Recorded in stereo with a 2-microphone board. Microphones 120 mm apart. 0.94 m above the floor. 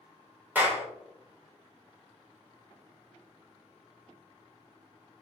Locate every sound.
0.6 s a clap: 15° right (ahead or behind), 1.1 m